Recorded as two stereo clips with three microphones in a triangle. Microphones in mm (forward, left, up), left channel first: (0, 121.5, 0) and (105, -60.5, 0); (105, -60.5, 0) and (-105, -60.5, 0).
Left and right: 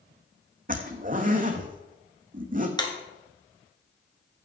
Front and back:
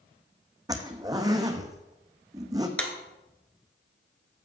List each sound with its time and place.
0.7 s a zipper: 105° right, 1.2 m
2.8 s a clap: 80° left, 1.5 m